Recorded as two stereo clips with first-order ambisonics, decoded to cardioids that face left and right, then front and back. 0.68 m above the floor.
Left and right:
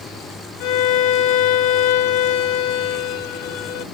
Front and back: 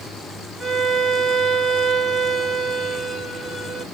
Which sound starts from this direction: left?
A violin, at 0.6 s.